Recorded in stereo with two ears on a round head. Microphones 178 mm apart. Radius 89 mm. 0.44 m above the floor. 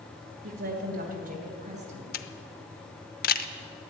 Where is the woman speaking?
55° right (ahead or behind), 2 m; by 2.0 s 35° right (ahead or behind), 3.5 m.